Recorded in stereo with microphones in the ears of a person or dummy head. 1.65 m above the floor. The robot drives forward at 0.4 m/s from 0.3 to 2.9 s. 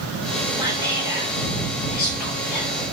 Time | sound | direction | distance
0.6 | whispering | 15° right (ahead or behind) | 0.7 m